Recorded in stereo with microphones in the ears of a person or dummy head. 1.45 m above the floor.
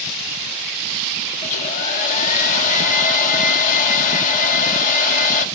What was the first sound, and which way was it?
A hair dryer, 50° left (ahead or behind).